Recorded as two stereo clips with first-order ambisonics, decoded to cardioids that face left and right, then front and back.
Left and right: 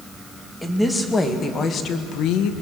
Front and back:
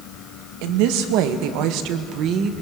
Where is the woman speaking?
175° left, 2 m; by 2.5 s 120° left, 1.3 m.